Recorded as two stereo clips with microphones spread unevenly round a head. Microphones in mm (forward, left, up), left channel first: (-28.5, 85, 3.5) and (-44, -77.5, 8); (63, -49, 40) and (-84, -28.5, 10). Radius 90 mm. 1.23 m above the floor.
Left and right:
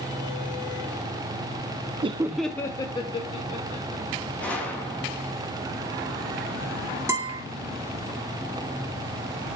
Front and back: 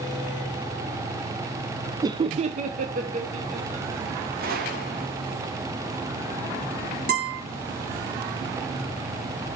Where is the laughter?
140° right, 0.5 m; by 4.0 s 135° left, 1.9 m.